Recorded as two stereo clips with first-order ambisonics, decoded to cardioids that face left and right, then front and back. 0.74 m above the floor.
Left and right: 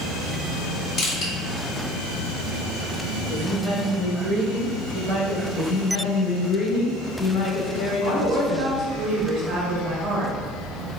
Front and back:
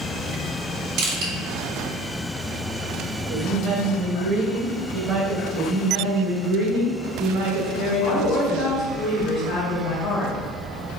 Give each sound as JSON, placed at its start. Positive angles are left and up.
{"t": 1.0, "sound": "crushing", "azimuth_deg": 140, "distance_m": 1.8}
{"t": 3.3, "sound": "a woman speaking", "azimuth_deg": 180, "distance_m": 0.9}
{"t": 5.5, "sound": "a woman speaking", "azimuth_deg": 140, "distance_m": 1.7}
{"t": 8.0, "sound": "a woman speaking", "azimuth_deg": -40, "distance_m": 1.4}